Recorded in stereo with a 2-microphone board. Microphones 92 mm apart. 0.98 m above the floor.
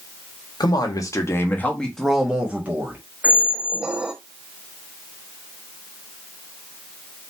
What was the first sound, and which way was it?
A man speaking, 50° left (ahead or behind).